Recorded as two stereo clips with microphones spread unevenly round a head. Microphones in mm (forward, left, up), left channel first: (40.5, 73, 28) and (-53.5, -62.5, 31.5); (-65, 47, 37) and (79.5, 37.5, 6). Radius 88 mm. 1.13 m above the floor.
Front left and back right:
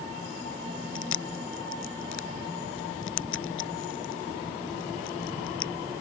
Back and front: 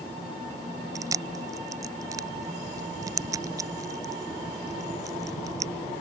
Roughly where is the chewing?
Ahead left.